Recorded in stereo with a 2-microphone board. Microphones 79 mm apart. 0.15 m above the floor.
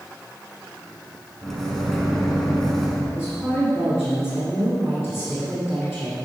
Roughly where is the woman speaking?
Centre.